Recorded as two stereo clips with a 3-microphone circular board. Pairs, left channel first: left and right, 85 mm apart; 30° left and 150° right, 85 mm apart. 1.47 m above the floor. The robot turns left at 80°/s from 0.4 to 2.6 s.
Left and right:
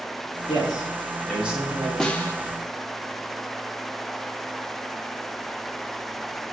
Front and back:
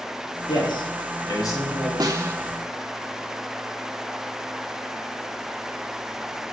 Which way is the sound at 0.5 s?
65° left.